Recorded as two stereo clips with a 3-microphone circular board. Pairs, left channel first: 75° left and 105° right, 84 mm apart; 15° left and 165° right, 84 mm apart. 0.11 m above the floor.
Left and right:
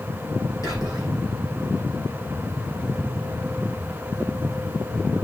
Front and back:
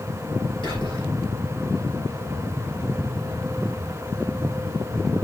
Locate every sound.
0.6 s whispering: 30° left, 6 m